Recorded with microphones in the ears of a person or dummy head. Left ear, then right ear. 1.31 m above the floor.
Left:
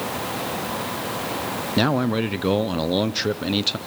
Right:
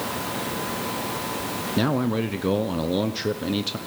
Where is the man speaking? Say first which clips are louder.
Left 3 dB; 20° left (ahead or behind), 0.6 m.